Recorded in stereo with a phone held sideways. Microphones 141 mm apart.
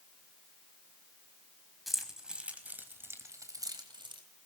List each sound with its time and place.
1.9 s keys jangling: centre (ahead or behind), 4.5 m; by 4.2 s 35° right (ahead or behind), 4 m